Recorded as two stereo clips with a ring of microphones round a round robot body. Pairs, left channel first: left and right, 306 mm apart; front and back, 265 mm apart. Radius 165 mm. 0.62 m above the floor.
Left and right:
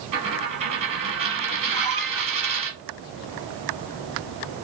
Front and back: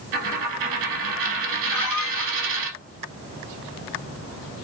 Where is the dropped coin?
160° right, 1.2 m.